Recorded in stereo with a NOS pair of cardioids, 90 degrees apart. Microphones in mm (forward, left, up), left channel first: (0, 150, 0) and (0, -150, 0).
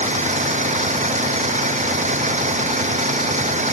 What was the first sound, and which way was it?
An engine running, 25° right.